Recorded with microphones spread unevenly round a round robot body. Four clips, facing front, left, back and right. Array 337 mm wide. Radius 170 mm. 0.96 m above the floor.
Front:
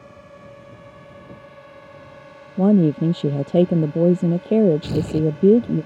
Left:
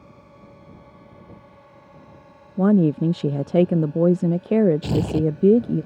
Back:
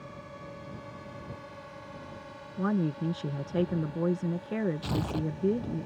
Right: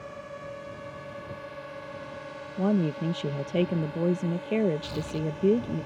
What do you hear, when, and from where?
0.0 s a drone: 90° right; by 5.9 s 50° right
2.6 s a woman speaking: 30° left
4.8 s tearing paper: 65° left